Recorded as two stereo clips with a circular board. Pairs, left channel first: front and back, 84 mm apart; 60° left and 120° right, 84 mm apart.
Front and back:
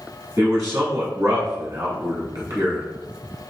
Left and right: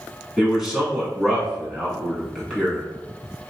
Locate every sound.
0.4 s a man speaking: 155° left, 1.6 m